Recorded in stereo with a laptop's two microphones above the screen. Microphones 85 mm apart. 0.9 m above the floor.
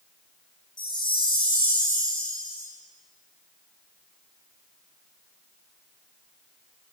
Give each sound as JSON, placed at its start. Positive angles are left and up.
{"t": 0.8, "sound": "a chime", "side_deg": 75, "distance_m": 2.0}